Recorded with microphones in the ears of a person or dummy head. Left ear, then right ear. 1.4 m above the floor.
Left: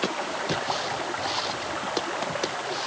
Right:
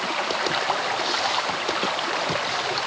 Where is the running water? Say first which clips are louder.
Right 4 dB; 80° right.